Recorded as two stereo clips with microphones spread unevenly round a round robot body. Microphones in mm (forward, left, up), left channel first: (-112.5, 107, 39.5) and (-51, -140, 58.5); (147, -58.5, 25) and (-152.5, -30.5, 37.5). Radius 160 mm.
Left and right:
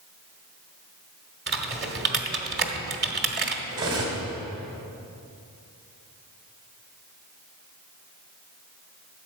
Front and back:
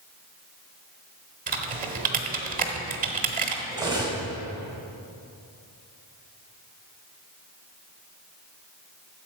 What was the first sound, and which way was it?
Typing on a keyboard, 125° right.